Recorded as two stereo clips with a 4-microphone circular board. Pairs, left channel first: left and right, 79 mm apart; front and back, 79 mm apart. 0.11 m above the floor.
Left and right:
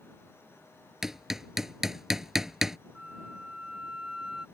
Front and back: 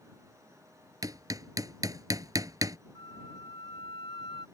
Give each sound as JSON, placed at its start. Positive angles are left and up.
{"t": 1.0, "sound": "hammering", "azimuth_deg": -175}
{"t": 3.0, "sound": "a flute", "azimuth_deg": -5}